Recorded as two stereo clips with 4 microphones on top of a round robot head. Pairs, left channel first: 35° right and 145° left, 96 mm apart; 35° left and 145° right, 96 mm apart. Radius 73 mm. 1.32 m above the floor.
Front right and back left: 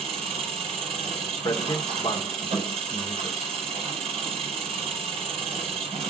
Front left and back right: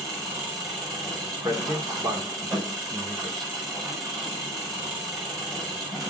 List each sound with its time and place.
0.0 s an engine running: 165° left, 5 m
1.4 s a man speaking: 95° right, 1.1 m